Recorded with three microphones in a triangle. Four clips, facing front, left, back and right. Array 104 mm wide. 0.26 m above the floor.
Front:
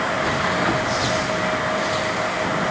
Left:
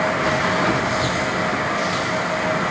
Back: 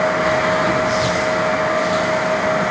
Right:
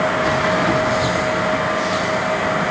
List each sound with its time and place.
Only background noise.